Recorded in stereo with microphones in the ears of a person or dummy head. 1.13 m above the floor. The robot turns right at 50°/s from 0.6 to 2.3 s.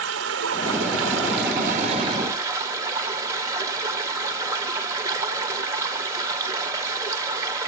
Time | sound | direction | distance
0.0 | running water | 105° right | 1.3 m